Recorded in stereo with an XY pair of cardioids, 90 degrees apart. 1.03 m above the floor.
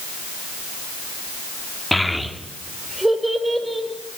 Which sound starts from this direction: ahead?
A child speaking, at 1.9 s.